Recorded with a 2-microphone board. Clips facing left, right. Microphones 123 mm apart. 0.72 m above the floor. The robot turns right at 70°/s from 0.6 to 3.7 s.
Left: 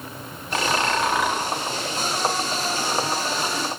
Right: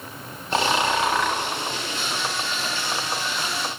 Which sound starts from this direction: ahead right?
Snoring, at 0.5 s.